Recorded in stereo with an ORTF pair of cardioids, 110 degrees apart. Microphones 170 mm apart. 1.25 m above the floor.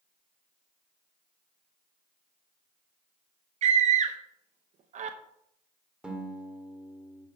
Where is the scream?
45° right, 0.8 m.